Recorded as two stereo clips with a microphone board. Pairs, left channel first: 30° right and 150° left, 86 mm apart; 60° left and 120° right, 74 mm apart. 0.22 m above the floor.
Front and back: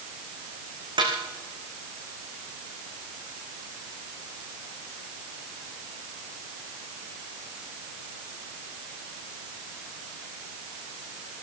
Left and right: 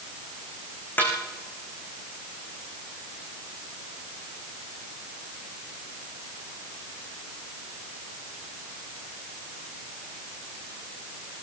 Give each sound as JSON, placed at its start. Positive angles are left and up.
{"t": 1.0, "sound": "a snare drum", "azimuth_deg": 125, "distance_m": 6.0}